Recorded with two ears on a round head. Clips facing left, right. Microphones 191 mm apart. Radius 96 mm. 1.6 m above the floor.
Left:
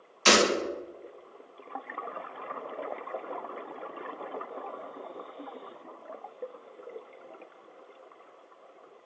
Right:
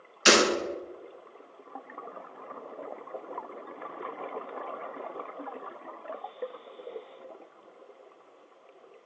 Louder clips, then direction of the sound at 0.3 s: Right 1 dB; 10° right (ahead or behind).